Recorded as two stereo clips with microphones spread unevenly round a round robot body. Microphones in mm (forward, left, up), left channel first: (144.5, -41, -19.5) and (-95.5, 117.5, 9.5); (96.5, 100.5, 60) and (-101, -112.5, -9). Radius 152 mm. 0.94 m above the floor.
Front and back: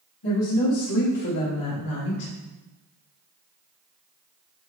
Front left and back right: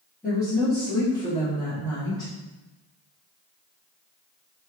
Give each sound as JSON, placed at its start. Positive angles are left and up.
{"t": 0.2, "sound": "a woman speaking", "azimuth_deg": -50, "distance_m": 2.5}